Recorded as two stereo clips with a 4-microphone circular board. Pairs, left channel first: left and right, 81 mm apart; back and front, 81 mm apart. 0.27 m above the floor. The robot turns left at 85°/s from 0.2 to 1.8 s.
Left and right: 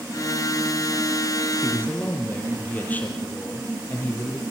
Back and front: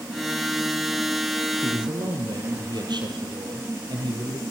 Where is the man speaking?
35° left, 6 m; by 4.4 s 20° left, 6 m.